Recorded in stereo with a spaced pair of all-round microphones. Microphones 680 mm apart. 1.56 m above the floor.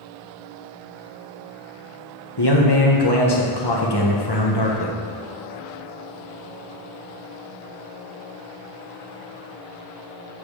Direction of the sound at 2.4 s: 35° left (ahead or behind).